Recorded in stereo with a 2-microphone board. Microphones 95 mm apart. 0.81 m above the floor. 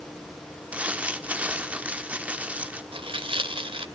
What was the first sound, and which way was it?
Crumpling, 15° right (ahead or behind).